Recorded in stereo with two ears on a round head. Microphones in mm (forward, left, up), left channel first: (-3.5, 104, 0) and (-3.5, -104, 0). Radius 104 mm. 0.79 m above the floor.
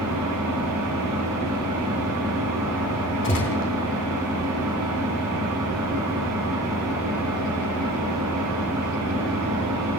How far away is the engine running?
About 4.5 m.